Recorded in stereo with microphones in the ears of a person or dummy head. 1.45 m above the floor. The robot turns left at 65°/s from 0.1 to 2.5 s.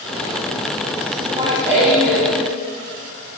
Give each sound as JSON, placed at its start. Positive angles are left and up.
{"t": 1.1, "sound": "laughter", "azimuth_deg": -135, "distance_m": 3.5}